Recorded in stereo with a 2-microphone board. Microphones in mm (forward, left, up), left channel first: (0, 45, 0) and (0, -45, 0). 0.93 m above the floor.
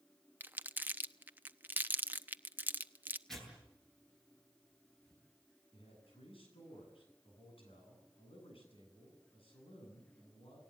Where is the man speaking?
80° left, 9 m.